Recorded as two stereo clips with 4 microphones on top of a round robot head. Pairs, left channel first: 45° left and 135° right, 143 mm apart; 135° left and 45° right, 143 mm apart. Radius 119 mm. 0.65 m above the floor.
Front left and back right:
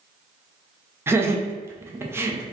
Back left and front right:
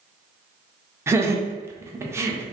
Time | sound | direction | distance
1.1 | laughter | 85° right | 0.6 m